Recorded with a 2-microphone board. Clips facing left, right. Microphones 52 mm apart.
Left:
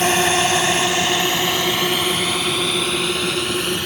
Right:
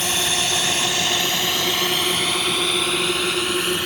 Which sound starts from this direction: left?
A drone, at 0.0 s.